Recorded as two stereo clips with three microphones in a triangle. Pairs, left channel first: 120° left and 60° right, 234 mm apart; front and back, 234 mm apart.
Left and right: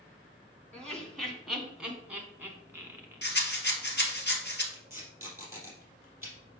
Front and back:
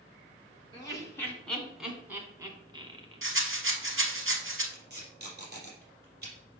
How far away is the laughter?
About 1.4 m.